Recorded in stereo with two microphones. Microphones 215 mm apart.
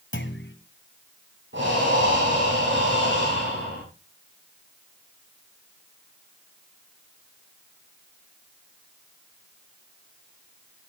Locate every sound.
0.1 s a clunk: 60° left (ahead or behind), 1.7 m
1.5 s breathing: 60° right (ahead or behind), 9.5 m